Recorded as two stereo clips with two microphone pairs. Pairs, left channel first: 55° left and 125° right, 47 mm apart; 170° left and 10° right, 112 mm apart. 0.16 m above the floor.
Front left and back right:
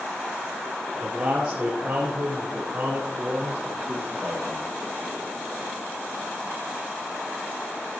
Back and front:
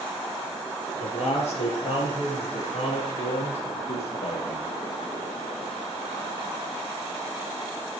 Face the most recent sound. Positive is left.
turn(degrees=-170)